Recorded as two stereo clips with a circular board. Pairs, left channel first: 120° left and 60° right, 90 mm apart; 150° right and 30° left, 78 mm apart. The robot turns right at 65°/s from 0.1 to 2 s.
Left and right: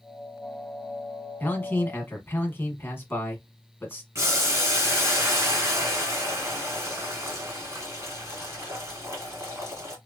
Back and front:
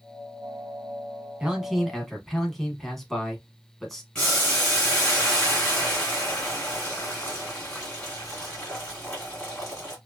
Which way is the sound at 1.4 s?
90° left.